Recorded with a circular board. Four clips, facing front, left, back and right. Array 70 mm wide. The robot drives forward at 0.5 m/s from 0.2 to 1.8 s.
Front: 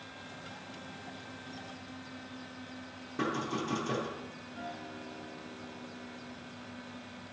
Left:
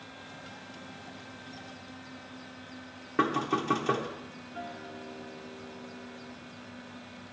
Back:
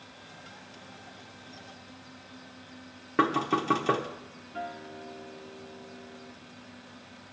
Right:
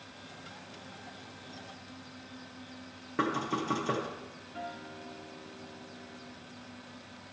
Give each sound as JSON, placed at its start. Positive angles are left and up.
{"t": 3.2, "sound": "knocking", "azimuth_deg": 170, "distance_m": 0.9}
{"t": 4.5, "sound": "a guitar", "azimuth_deg": -170, "distance_m": 1.4}